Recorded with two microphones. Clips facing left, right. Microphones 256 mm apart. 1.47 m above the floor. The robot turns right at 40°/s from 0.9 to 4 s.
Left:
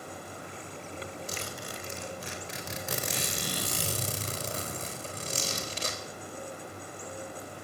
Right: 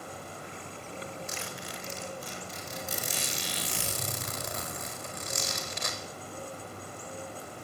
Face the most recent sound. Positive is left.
turn(degrees=145)